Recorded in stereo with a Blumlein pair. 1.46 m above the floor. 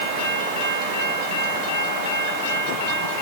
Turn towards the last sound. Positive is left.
No sound to turn to.